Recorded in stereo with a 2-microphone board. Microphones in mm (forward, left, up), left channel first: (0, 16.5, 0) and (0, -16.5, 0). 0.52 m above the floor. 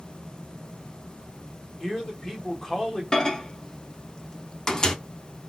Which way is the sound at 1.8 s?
15° left (ahead or behind).